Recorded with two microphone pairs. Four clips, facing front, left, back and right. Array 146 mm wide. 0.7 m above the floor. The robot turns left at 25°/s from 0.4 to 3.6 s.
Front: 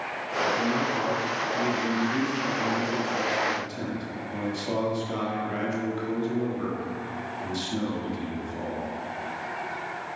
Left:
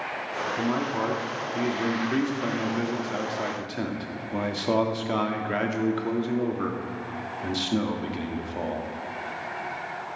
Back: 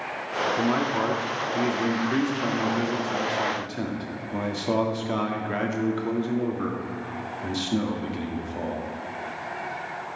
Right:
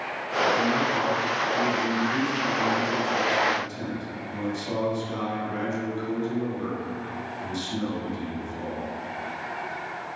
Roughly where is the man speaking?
Behind.